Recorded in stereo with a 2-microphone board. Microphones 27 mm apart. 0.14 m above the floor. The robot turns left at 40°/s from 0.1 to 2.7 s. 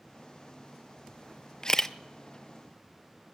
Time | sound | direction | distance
1.6 | a camera shutter | 25° left (ahead or behind) | 0.6 m